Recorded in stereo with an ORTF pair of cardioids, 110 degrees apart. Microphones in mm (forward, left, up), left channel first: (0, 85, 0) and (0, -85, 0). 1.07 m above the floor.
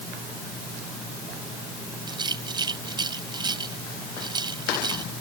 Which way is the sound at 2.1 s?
25° right.